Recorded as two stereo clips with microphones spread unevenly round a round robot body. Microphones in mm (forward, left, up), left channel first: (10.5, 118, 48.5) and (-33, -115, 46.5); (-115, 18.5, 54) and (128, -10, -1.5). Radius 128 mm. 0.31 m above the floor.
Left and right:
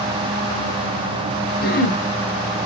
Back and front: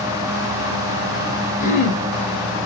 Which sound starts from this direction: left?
Throat clearing, at 1.6 s.